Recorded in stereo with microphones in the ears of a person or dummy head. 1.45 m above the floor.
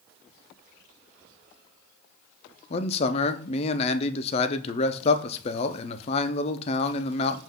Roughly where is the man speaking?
Left.